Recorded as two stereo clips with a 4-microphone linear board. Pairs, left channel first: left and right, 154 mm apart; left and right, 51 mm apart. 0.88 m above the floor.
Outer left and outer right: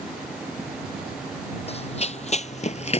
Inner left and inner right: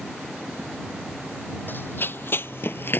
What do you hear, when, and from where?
1.7 s running footsteps: 40° left (ahead or behind)